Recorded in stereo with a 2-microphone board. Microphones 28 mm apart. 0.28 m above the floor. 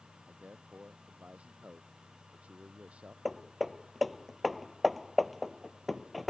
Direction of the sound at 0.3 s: 50° right (ahead or behind).